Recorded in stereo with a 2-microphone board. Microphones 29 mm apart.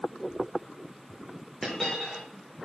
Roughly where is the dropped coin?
Centre.